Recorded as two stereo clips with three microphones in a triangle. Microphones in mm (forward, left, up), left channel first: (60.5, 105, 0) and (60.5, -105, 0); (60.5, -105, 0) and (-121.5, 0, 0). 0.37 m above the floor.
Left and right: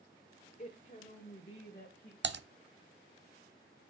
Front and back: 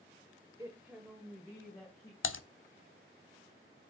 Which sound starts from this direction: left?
A woman speaking, at 0.6 s.